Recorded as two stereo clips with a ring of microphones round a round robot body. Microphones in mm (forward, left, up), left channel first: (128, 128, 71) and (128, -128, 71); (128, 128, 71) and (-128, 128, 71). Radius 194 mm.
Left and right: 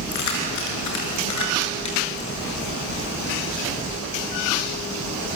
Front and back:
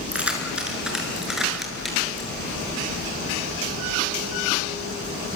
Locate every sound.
0.1 s keys jangling: 95° left, 5.5 m; by 2.3 s 90° left, 7 m